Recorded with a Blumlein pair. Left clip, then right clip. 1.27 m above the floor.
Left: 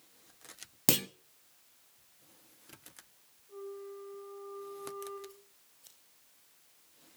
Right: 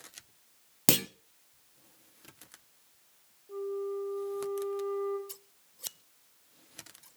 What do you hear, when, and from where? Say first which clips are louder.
0.9 s a clunk: right 3 dB; 10° right, 0.7 m
3.5 s a flute: right 9 dB; 55° right, 6.5 m
5.3 s scissors: right 6 dB; 40° right, 0.6 m